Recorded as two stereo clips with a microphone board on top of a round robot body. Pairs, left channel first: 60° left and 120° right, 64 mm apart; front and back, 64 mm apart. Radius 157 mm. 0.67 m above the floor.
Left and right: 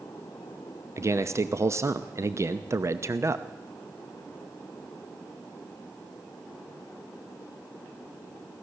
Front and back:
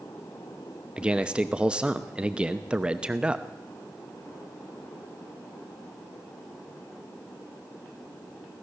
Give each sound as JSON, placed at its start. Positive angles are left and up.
{"t": 1.0, "sound": "a man speaking", "azimuth_deg": -110, "distance_m": 1.0}